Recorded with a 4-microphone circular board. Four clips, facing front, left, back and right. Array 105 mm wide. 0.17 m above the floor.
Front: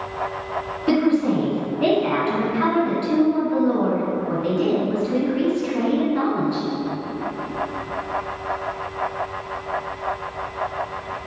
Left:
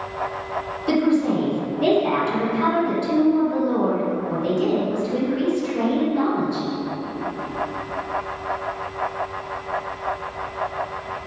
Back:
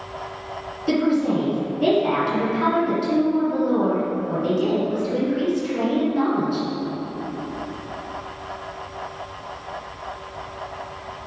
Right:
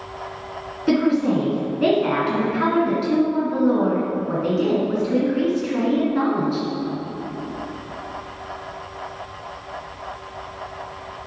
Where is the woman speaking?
60° right, 2.0 m.